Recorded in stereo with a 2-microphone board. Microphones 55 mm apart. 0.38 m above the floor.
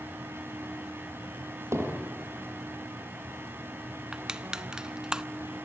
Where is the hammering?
55° right (ahead or behind), 5.5 m.